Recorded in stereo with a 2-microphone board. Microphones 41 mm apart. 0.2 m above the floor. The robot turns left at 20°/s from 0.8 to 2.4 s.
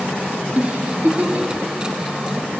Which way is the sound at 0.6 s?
35° right (ahead or behind).